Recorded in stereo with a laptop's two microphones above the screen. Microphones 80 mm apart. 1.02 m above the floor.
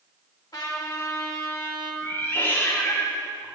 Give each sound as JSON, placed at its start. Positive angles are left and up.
{"t": 0.5, "sound": "a trumpet", "side_deg": 60, "distance_m": 1.5}
{"t": 2.0, "sound": "a cat meowing", "side_deg": 30, "distance_m": 3.5}